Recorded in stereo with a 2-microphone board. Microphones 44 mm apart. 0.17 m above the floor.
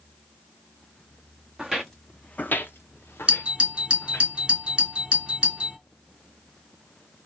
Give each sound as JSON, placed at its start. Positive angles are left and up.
{"t": 1.6, "sound": "footsteps", "side_deg": -10, "distance_m": 0.7}
{"t": 3.3, "sound": "a doorbell", "side_deg": -25, "distance_m": 1.9}